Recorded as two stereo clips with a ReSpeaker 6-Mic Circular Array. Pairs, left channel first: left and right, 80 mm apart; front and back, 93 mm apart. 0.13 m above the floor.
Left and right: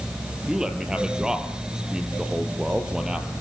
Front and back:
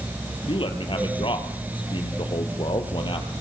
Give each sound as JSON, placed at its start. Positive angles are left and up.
{"t": 0.5, "sound": "a man speaking", "azimuth_deg": -10, "distance_m": 3.0}